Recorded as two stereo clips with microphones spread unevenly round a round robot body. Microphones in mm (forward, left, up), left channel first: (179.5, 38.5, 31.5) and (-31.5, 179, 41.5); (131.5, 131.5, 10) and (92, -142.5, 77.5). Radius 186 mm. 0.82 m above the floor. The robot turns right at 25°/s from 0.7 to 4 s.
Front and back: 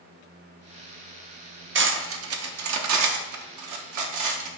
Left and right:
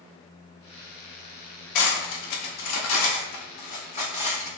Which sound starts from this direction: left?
Cutlery clinking, at 1.8 s.